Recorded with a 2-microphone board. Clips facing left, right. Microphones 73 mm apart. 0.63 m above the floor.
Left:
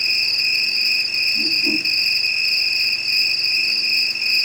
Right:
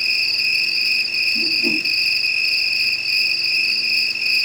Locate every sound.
0.0 s an insect: 20° left (ahead or behind), 1.2 m
1.4 s a whoosh: 35° right (ahead or behind), 3 m